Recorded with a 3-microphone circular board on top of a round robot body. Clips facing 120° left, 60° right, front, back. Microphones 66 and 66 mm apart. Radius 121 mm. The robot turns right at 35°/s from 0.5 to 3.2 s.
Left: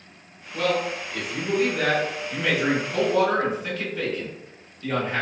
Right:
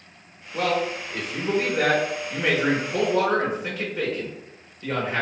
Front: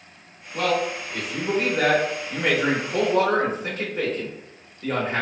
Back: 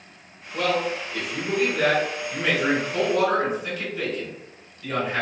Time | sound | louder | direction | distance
0.5 | a man speaking | even, front 1 dB | 90° right | 1.1 m